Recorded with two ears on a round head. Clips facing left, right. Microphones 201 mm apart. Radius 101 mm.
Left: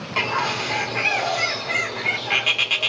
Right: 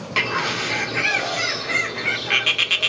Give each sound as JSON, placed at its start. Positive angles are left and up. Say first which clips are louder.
{"t": 0.2, "sound": "a bird", "louder": "even", "side_deg": -25, "distance_m": 0.7}